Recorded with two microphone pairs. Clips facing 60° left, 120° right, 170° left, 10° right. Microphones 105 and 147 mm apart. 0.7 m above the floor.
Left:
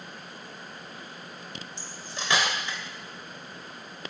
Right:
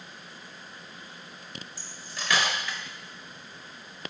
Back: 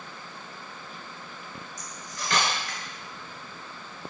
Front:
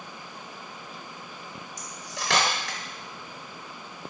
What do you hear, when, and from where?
1.8 s cutlery clinking: 5° right, 0.7 m